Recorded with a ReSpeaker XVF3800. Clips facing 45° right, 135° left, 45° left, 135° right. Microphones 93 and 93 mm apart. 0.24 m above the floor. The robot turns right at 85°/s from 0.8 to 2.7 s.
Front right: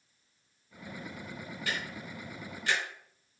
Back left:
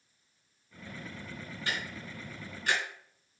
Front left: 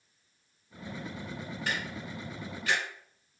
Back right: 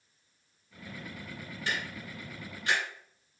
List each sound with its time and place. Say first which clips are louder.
1.7 s ticking: even, even; 80° left, 2 m; by 2.8 s 170° left, 2 m